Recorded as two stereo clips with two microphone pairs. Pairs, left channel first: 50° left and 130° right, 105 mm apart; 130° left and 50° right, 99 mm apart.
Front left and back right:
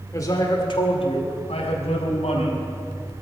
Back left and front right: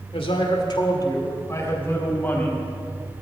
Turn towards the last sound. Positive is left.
turn(degrees=55)